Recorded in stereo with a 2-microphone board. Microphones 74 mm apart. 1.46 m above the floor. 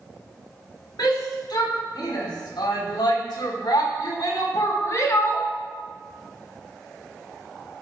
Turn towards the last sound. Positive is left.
turn(degrees=35)  # may be behind; listen again after turning